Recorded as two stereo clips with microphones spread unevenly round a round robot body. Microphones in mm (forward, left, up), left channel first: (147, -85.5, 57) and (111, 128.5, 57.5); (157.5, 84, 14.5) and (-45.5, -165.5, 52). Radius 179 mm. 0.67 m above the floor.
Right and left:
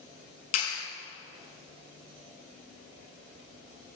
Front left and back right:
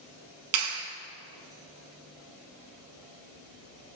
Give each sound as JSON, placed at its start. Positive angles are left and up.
{"t": 0.5, "sound": "a clap", "azimuth_deg": -100, "distance_m": 5.0}